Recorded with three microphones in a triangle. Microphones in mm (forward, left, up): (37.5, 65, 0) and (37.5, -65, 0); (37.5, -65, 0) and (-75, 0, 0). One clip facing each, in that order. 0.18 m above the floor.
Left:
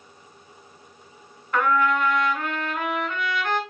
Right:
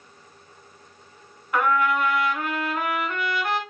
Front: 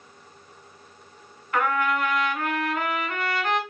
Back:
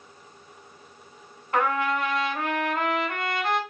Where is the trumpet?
165° right, 0.7 m.